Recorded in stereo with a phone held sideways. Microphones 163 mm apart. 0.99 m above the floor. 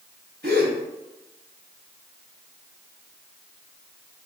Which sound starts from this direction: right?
A gasp, at 0.4 s.